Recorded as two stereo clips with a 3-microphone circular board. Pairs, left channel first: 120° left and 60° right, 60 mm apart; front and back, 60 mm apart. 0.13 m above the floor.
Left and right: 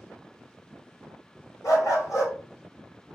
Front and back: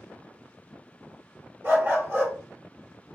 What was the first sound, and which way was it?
A dog barking, 130° left.